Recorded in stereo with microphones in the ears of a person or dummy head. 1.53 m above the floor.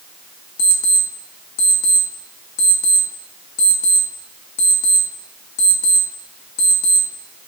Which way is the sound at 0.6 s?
50° left (ahead or behind).